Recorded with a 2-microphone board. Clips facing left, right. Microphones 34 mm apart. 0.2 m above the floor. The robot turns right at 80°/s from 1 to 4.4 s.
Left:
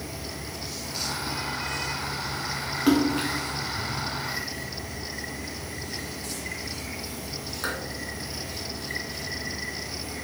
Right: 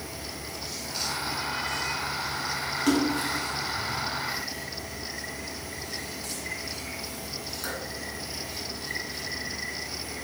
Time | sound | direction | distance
2.9 | a splash | 15° left (ahead or behind) | 0.8 m